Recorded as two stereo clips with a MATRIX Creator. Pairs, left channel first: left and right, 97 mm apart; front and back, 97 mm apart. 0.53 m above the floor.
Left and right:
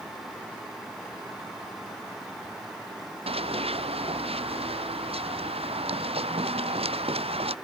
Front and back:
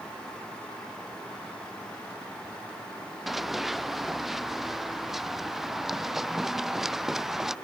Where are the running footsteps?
90° right; by 7.5 s 95° right.